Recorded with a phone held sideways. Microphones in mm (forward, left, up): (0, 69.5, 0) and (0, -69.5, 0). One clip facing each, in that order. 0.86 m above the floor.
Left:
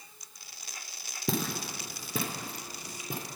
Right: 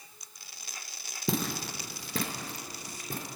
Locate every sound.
1.3 s footsteps: centre (ahead or behind), 0.8 m; by 3.3 s 10° left (ahead or behind), 1.1 m